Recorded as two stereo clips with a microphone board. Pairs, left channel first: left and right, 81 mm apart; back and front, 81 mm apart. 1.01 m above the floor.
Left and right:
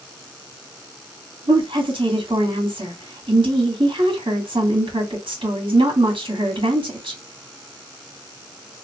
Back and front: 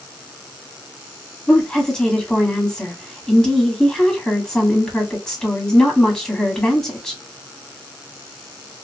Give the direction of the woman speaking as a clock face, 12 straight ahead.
3 o'clock.